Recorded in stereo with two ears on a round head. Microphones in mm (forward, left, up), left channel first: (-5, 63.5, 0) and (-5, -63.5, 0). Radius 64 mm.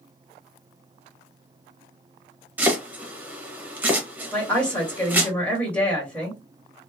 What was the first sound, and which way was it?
Chopping, 15° right (ahead or behind).